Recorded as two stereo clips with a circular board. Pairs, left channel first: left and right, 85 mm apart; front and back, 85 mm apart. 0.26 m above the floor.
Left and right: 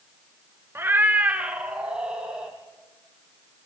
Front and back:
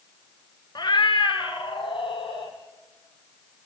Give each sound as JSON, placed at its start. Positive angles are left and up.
{"t": 0.8, "sound": "a cat meowing", "azimuth_deg": -30, "distance_m": 1.0}